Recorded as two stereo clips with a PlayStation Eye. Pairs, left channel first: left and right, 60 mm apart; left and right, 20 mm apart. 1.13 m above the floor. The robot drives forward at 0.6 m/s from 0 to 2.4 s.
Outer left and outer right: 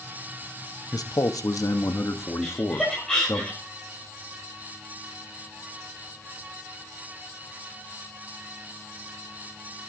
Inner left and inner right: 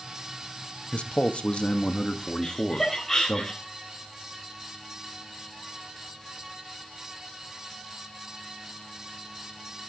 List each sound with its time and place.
0.9 s a man speaking: 85° left, 1.1 m; by 3.4 s 50° left (ahead or behind), 1.3 m
2.4 s laughter: 10° left (ahead or behind), 3.5 m